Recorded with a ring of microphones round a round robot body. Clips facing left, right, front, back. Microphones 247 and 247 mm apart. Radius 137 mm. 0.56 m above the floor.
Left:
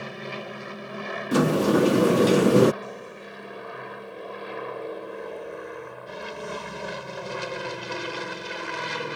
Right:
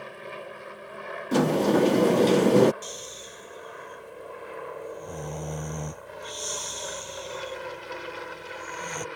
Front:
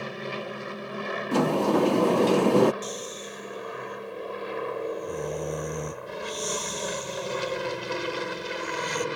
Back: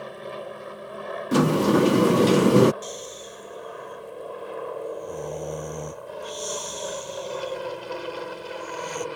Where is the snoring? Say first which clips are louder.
Left 4 dB, front 1 dB; 85° right.